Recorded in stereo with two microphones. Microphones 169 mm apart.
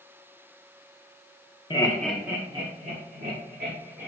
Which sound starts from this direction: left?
Laughter, at 1.7 s.